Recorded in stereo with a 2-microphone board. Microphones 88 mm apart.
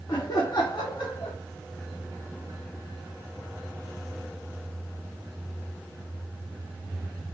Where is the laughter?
50° left (ahead or behind), 2 m; by 1.4 s 90° left, 2 m.